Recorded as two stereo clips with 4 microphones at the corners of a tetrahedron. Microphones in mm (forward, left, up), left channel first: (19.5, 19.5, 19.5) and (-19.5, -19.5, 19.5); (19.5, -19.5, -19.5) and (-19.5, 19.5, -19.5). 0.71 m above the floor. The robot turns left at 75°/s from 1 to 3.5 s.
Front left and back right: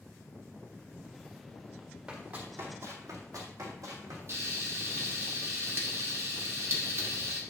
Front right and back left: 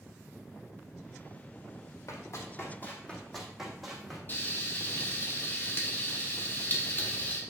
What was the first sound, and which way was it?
Running footsteps, 60° right.